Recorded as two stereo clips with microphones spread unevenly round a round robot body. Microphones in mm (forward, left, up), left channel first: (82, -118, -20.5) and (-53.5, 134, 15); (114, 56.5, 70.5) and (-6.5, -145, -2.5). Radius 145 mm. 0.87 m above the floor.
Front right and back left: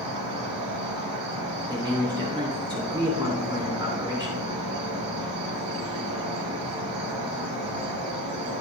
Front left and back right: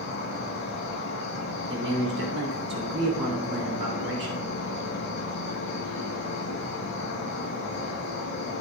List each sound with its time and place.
0.0 s an insect: 95° left, 4 m
1.7 s a man speaking: 165° right, 3 m